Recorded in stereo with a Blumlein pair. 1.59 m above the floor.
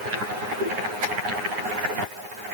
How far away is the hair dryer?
No hair dryer in this recording.